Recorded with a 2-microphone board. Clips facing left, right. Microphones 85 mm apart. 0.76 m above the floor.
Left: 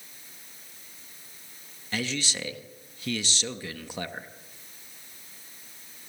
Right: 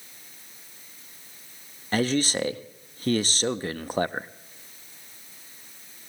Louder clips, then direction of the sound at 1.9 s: Right 8 dB; 45° right (ahead or behind).